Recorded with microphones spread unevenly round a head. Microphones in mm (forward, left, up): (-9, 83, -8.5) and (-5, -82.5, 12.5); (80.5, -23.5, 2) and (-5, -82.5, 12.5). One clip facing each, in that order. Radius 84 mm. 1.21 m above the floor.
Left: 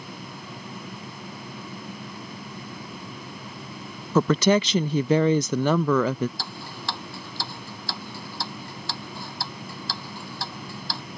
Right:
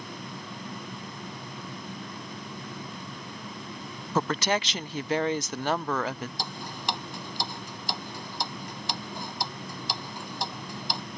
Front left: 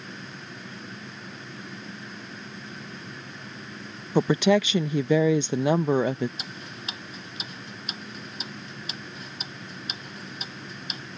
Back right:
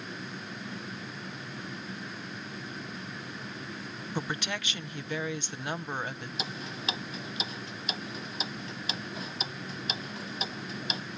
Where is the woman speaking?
75° left.